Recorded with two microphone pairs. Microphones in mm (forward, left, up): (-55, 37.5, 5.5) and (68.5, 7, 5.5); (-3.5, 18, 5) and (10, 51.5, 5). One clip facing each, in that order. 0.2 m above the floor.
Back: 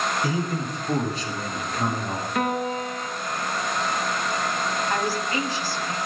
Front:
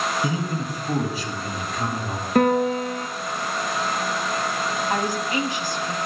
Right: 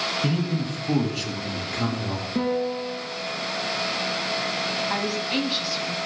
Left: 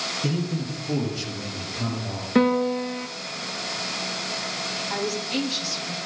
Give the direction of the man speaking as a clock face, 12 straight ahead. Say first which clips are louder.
Even, right 2 dB; 2 o'clock.